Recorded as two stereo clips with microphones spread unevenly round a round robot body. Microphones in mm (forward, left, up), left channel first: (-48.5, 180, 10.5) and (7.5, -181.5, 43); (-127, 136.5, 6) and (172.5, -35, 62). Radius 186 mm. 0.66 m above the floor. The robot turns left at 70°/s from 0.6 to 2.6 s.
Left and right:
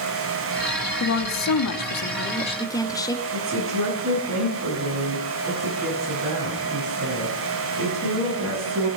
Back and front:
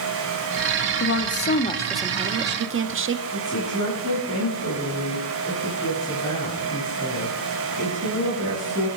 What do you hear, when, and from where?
1.0 s a woman speaking: 135° left, 1.5 m; by 3.2 s 25° left, 1.5 m
3.3 s a woman speaking: 140° right, 7.5 m